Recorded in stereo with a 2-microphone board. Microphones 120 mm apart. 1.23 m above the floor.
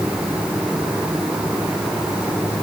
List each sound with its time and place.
Only background noise.